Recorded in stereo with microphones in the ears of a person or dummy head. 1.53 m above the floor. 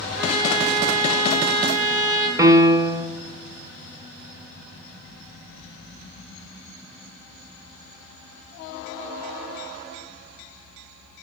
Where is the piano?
20° right (ahead or behind), 0.6 m.